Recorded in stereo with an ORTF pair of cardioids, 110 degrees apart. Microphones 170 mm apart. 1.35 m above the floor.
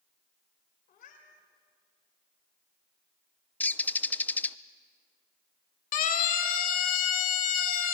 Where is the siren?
55° left, 2.5 m.